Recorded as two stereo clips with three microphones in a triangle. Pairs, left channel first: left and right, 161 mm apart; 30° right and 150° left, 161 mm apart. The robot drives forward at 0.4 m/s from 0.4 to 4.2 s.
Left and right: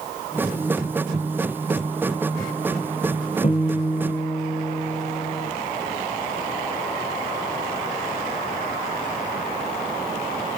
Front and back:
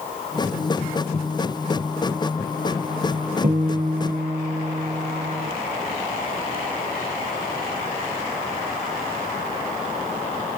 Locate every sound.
3.4 s a guitar: 130° left, 0.6 m; by 5.5 s 150° left, 0.8 m